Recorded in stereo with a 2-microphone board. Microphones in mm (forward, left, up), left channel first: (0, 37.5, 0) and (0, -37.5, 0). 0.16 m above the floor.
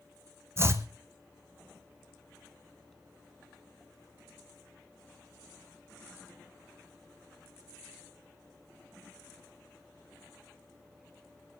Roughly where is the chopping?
Right.